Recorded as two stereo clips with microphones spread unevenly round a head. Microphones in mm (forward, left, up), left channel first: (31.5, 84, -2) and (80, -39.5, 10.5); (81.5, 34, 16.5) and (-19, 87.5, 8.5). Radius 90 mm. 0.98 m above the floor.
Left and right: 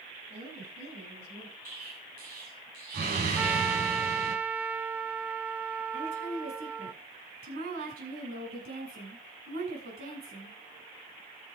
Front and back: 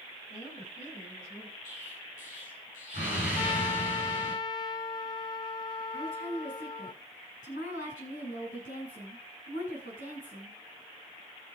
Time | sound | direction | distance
0.3 | a woman speaking | 70° right | 8.5 m
1.6 | an explosion | 70° right | 5.5 m
3.4 | a trumpet | 5° left | 0.8 m
5.9 | a woman speaking | 75° right | 8.5 m